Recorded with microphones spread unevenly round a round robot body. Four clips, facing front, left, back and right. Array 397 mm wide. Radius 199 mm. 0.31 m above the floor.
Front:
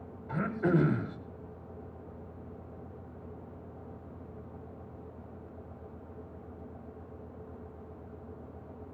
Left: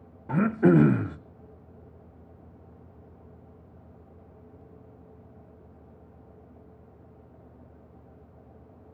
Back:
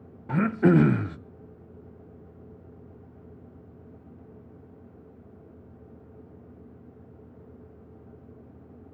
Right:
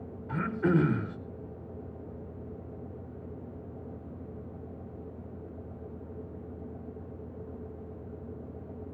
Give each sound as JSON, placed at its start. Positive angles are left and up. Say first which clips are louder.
{"t": 0.3, "sound": "throat clearing", "louder": "left 7 dB, back 8 dB", "azimuth_deg": 170, "distance_m": 0.8}